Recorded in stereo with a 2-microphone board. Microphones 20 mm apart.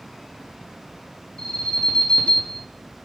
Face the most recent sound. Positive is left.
turn(degrees=60)  # may be behind; listen again after turning